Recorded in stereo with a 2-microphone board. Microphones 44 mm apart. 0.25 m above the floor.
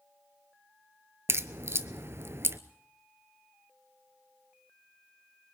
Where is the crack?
70° right (ahead or behind), 0.7 m.